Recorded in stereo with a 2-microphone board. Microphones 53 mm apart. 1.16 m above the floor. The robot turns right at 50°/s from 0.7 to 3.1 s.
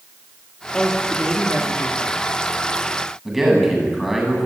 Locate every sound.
0.7 s a woman speaking: 170° left, 2.5 m; by 2.3 s 115° right, 2.5 m
3.2 s a man speaking: 5° right (ahead or behind), 8 m